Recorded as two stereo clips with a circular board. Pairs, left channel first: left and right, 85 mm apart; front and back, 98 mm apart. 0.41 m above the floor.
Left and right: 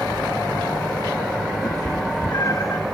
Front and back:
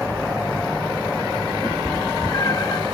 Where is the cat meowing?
50° left, 1.3 m; by 2.8 s 45° left, 0.5 m.